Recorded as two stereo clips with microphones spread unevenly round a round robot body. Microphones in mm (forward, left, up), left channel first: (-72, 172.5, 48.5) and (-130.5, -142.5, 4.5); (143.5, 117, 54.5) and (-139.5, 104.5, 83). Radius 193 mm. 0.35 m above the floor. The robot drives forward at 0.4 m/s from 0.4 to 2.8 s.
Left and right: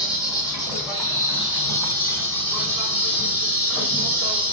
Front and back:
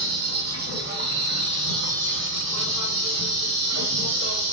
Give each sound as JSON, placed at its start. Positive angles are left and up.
{"t": 0.0, "sound": "an insect", "azimuth_deg": 160, "distance_m": 2.5}